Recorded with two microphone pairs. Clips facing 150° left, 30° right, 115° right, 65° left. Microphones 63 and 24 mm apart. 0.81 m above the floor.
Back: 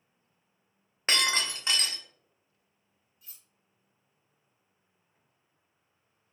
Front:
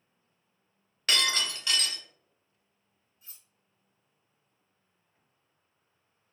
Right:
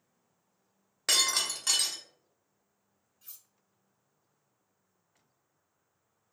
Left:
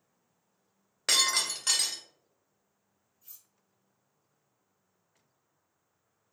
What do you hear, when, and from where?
1.1 s breaking glass: 150° left, 0.5 m
3.2 s cutlery clinking: 90° right, 0.6 m